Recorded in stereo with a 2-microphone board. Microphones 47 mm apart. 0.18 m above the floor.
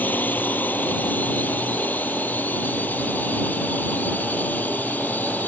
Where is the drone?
40° left (ahead or behind).